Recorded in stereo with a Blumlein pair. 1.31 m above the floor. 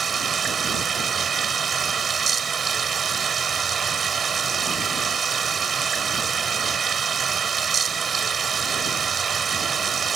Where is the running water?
20° right.